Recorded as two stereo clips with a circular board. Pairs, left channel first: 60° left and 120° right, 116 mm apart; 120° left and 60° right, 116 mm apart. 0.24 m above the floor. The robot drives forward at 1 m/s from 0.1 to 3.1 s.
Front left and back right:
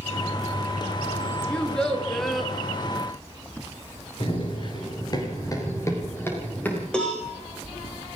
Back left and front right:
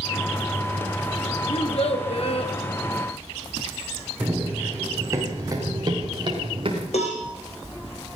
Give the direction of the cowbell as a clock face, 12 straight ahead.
7 o'clock.